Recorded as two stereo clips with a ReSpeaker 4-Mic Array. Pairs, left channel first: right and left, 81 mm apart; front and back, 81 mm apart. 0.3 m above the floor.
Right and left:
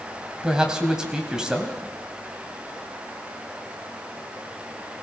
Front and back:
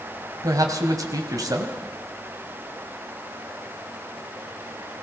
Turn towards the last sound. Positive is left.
turn(degrees=170)